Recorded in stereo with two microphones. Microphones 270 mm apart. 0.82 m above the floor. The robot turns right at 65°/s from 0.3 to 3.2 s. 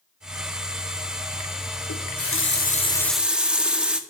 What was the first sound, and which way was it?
A running tap, 100° left.